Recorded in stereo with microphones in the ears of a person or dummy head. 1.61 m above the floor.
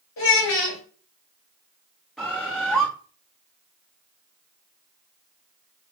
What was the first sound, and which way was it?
A child speaking, 65° left (ahead or behind).